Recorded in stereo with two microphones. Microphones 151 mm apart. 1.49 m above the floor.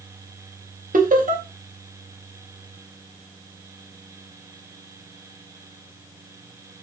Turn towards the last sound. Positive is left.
turn(degrees=-65)  # may be behind; listen again after turning